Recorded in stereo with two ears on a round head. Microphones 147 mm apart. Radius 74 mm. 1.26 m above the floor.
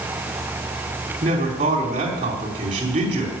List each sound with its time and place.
1.2 s a man speaking: 45° right (ahead or behind), 3.5 m